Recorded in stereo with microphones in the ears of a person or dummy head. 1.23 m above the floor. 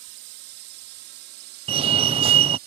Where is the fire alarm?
25° right (ahead or behind).